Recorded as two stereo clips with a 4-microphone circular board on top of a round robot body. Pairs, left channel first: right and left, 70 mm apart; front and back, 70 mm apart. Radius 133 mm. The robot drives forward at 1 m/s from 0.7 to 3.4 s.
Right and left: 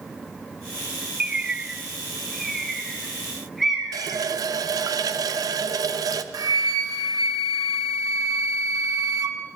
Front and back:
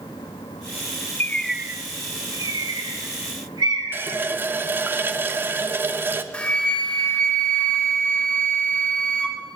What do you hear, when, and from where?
1.2 s a bird: 20° left, 0.5 m; by 4.2 s 175° left, 2.0 m
3.9 s a running tap: 120° left, 0.5 m
6.3 s a flute: 70° left, 1.1 m